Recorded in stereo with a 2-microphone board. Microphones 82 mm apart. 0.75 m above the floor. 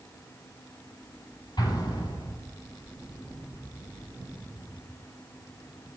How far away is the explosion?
About 5.5 m.